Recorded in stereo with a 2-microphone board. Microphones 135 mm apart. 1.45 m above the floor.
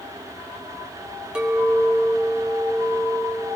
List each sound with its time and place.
1.4 s a clink: 5° right (ahead or behind), 1.3 m